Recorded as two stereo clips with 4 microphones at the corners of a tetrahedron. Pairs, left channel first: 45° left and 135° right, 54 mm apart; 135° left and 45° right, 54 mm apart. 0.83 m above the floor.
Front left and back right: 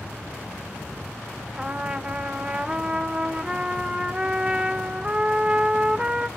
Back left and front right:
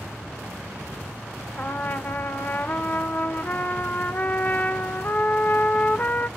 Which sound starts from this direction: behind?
A trumpet, at 1.6 s.